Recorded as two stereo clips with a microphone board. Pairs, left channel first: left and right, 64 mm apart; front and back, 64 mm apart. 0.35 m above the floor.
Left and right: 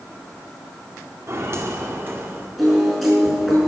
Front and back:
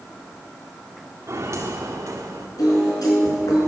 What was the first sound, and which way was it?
Footsteps, 135° right.